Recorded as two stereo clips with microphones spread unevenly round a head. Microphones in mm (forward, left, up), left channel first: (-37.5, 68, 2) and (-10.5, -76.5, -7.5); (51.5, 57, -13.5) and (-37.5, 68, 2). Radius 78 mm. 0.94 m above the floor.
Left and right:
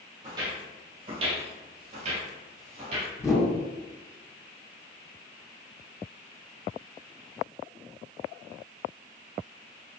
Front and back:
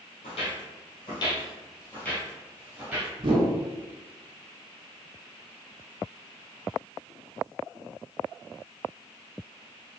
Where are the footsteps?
15° right, 1.6 m; by 3.1 s 125° right, 1.5 m.